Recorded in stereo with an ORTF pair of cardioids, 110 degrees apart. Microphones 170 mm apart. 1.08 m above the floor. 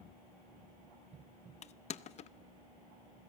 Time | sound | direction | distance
1.6 | crushing | 45° left | 0.6 m